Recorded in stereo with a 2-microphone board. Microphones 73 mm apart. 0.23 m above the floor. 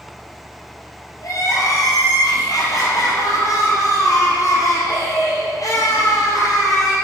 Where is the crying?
50° left (ahead or behind), 4.5 m.